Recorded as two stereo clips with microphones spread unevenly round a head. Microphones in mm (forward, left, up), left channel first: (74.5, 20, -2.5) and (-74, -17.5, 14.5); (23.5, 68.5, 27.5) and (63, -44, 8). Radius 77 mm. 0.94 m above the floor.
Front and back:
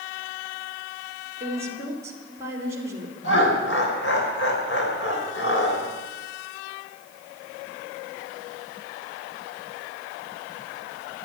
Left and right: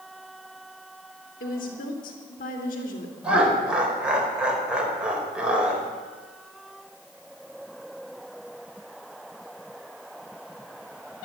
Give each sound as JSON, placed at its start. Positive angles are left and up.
{"t": 1.4, "sound": "a woman speaking", "azimuth_deg": 120, "distance_m": 3.0}
{"t": 3.2, "sound": "laughter", "azimuth_deg": 10, "distance_m": 4.5}